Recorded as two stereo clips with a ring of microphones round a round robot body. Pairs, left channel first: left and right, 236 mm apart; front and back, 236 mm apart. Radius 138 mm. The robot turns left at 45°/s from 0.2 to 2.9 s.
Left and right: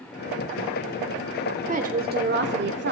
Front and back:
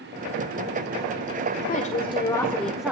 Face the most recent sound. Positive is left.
turn(degrees=-100)